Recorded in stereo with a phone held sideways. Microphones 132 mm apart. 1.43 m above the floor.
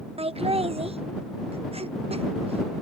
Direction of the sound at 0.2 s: 50° right (ahead or behind).